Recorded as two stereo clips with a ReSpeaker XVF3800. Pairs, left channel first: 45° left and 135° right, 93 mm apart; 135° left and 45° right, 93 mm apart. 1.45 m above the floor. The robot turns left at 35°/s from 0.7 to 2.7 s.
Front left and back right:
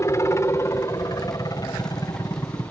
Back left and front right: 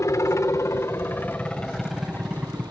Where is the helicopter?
90° left; by 2.7 s 15° left.